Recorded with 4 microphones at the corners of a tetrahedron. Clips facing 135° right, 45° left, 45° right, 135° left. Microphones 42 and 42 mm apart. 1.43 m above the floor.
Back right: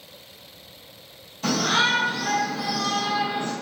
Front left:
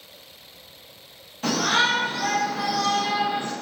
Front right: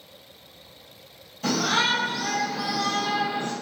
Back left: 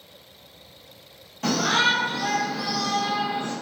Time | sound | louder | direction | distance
1.4 | a shout | even, back left 2 dB | 100° left | 1.3 m